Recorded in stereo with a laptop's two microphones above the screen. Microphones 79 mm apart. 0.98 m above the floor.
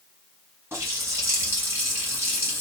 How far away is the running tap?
About 5 m.